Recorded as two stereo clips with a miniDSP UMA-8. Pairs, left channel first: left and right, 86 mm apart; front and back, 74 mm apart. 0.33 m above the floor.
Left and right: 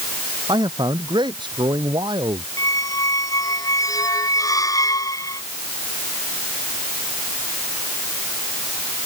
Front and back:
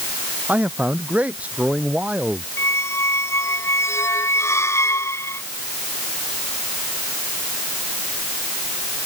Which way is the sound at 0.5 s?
110° right.